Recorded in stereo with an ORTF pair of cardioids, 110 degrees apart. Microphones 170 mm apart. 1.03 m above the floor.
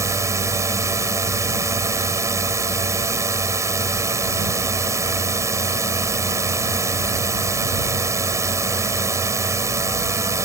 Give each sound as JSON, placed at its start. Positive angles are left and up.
{"t": 0.0, "sound": "a drone", "azimuth_deg": -20}